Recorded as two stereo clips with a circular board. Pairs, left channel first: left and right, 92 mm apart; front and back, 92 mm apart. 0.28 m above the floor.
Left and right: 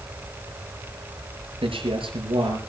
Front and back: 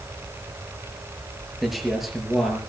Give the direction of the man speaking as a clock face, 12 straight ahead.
3 o'clock.